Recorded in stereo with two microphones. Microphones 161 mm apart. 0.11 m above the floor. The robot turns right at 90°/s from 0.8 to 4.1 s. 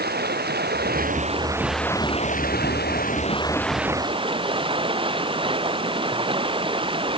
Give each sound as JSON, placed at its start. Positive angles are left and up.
{"t": 0.0, "sound": "running water", "azimuth_deg": -85}